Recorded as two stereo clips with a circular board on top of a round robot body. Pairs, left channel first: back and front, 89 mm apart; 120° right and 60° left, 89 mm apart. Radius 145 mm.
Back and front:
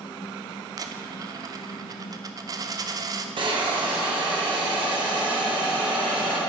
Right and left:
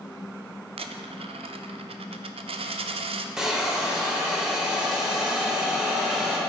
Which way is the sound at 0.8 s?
50° left.